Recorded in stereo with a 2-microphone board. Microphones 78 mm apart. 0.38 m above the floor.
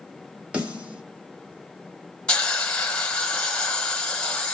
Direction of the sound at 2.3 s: 10° left (ahead or behind).